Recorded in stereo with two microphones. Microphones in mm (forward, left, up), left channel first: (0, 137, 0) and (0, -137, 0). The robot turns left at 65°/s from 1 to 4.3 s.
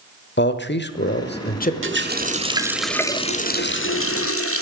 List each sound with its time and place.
0.4 s a man speaking: 95° left, 1.0 m; by 1.7 s 50° left, 1.0 m
1.8 s a running tap: 115° right, 1.1 m; by 4.6 s 85° left, 1.1 m